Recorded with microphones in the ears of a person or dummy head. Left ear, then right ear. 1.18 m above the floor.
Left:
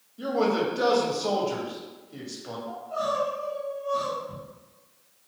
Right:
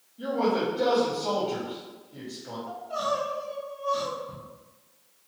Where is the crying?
30° right (ahead or behind), 0.8 m.